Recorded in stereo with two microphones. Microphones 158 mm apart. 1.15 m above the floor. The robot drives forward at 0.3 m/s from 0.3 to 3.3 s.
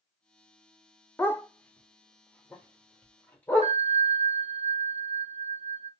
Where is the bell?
45° right (ahead or behind), 0.6 m.